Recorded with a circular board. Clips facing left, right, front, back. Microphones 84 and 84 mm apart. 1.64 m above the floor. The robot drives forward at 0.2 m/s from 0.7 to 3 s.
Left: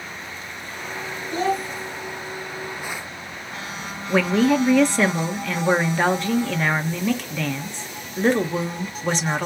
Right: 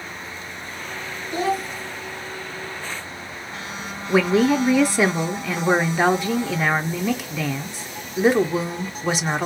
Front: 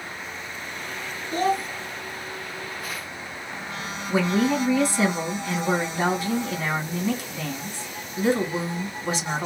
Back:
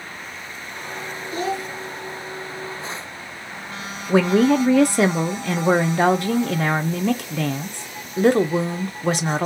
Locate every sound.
1.3 s a child speaking: 10° right, 0.7 m
4.1 s a woman speaking: 170° right, 0.5 m